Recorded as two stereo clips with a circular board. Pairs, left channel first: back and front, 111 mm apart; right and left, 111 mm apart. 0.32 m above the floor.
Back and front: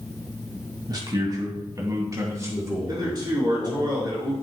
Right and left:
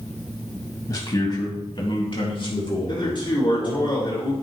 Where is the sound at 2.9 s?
50° right, 4.5 m.